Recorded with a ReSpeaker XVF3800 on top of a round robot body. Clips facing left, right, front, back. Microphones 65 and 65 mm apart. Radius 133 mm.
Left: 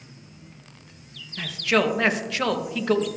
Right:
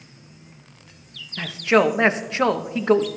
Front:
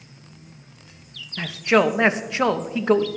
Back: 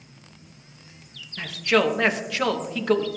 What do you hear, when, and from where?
1.4 s a man speaking: 50° right, 0.9 m